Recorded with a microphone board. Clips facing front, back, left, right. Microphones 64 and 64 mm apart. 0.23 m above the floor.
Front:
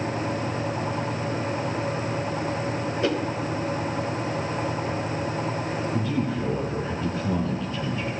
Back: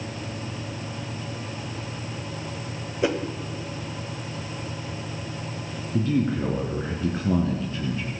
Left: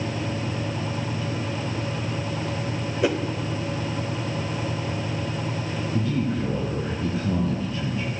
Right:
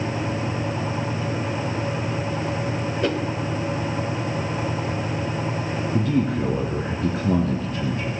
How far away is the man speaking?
About 2.5 m.